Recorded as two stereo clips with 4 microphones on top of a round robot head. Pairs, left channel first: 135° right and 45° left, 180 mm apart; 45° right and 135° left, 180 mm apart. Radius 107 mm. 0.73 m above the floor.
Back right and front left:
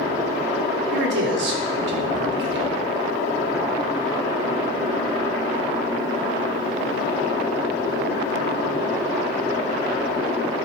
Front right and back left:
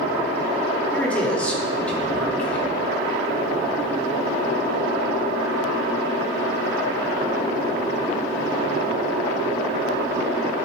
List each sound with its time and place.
0.9 s a man speaking: 40° left, 1.5 m